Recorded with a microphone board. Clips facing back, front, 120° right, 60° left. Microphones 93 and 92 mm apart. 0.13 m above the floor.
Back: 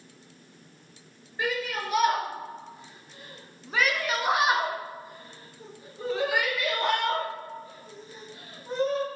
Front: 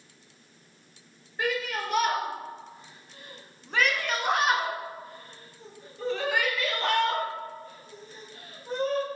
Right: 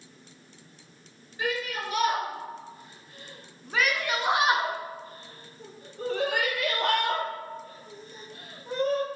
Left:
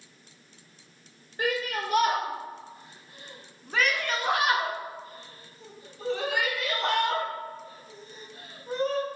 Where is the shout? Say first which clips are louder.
Even, left 2 dB; 85° left, 1.8 m; by 9.1 s 100° right, 3.5 m.